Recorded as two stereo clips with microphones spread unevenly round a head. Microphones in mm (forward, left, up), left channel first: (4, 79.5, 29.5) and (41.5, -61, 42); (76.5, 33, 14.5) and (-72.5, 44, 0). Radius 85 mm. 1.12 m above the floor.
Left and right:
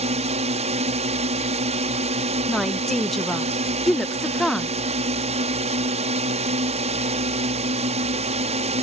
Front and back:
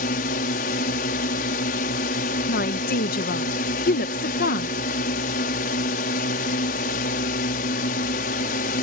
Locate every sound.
0.0 s a drone: 35° right
2.5 s a woman speaking: 20° left